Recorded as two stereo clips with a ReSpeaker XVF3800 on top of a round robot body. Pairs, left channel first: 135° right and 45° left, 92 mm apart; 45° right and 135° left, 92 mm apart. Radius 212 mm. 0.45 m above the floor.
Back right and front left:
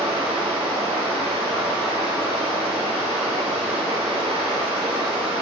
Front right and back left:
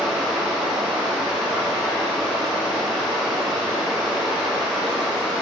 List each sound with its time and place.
0.0 s running water: 50° left, 1.2 m